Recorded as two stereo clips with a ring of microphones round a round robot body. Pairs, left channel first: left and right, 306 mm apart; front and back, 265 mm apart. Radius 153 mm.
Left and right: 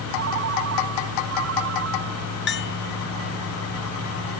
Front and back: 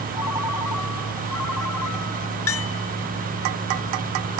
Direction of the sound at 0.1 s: 40° right.